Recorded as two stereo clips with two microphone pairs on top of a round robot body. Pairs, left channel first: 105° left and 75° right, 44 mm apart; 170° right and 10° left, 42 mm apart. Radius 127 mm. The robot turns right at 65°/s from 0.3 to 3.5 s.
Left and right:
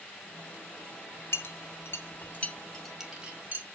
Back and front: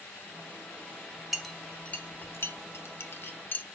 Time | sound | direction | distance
1.3 | a clink | 95° left | 1.3 m